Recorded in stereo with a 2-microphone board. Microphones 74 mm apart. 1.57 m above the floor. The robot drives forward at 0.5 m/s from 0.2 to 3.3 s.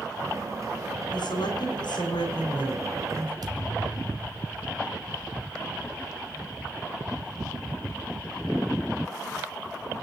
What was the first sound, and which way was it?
A woman speaking, 85° left.